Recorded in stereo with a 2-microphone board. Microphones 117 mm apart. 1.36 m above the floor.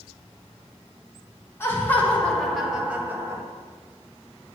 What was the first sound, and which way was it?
Laughter, 20° left (ahead or behind).